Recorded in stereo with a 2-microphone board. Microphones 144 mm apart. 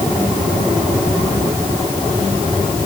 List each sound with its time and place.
Only background noise.